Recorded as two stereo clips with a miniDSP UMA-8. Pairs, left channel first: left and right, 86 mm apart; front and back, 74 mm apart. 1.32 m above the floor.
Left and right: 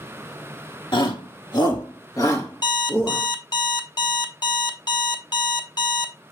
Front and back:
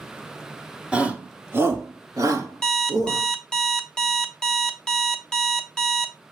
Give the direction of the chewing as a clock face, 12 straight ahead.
No chewing in this recording.